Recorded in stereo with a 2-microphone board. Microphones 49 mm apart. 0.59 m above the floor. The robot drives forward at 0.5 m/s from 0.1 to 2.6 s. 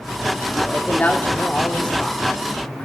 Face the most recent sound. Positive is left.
turn(degrees=20)  # may be behind; listen again after turning